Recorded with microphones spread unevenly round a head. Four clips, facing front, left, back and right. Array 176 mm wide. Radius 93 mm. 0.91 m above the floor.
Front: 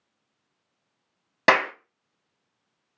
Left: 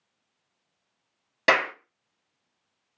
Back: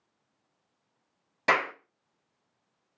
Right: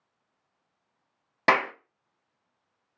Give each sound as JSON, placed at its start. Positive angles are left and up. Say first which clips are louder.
{"t": 1.5, "sound": "a clap", "louder": "even, front 6 dB", "azimuth_deg": -5, "distance_m": 1.2}